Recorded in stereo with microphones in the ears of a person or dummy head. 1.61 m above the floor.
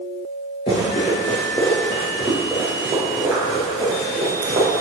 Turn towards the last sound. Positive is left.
turn(degrees=-35)  # may be behind; listen again after turning